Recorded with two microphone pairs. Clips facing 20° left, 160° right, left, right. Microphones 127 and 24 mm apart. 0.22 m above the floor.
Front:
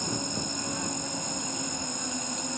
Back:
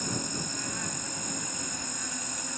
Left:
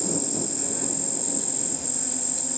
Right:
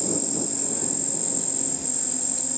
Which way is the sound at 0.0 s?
25° left.